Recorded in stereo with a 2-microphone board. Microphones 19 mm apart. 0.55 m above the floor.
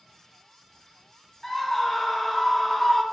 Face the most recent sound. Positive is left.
turn(degrees=10)  # may be behind; listen again after turning